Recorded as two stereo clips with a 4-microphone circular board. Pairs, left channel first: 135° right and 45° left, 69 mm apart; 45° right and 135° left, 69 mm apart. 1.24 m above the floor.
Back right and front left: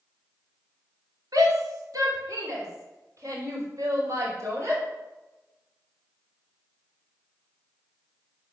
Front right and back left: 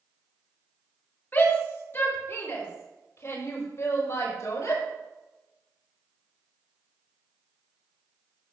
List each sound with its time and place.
1.3 s a shout: 20° left, 3 m; by 4.8 s straight ahead, 5.5 m